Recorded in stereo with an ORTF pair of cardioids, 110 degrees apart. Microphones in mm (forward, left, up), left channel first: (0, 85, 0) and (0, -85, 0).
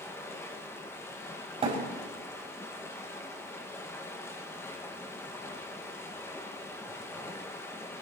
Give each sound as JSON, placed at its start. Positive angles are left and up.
{"t": 0.0, "sound": "running water", "azimuth_deg": 15, "distance_m": 1.7}
{"t": 1.6, "sound": "a thud", "azimuth_deg": -35, "distance_m": 5.0}